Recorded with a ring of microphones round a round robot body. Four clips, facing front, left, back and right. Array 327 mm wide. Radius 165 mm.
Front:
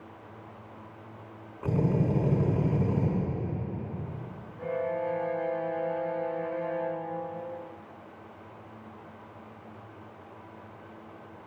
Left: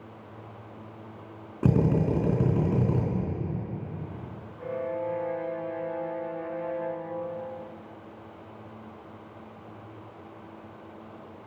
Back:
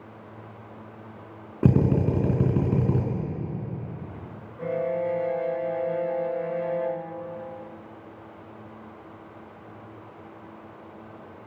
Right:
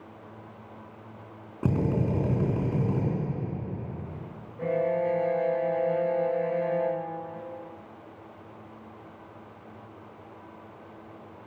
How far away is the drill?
About 4 m.